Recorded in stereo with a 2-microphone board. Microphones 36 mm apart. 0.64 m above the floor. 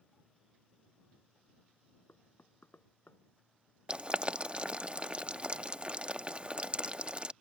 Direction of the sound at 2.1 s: 85° left.